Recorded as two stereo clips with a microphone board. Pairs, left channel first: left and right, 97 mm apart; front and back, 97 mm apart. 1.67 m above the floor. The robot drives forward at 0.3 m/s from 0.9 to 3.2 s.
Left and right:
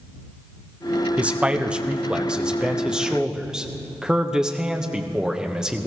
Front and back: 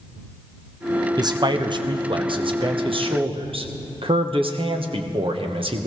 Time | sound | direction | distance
1.2 | a man speaking | 160° right | 0.7 m